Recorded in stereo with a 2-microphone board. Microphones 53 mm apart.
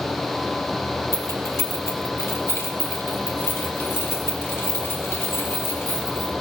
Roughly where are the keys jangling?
Left.